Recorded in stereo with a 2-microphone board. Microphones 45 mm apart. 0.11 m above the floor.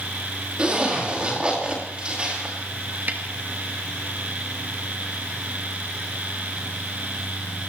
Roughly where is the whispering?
I don't hear whispering.